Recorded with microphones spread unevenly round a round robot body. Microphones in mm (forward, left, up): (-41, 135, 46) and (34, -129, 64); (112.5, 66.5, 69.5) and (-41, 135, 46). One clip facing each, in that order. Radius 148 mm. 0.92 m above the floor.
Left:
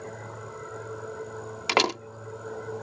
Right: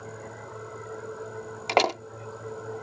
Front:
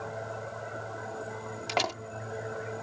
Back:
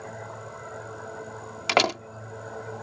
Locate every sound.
1.7 s a door slam: 170° left